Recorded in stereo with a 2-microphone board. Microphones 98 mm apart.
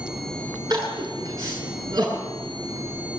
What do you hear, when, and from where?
0.7 s crying: 45° right (ahead or behind), 7.5 m